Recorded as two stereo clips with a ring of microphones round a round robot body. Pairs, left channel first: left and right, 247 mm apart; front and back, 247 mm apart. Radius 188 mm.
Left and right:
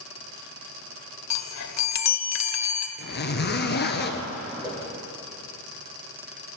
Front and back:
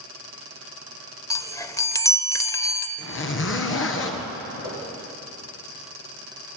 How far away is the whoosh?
About 7.5 m.